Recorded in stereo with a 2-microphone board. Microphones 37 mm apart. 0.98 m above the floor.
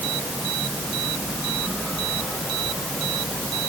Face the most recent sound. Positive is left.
No sound to turn to.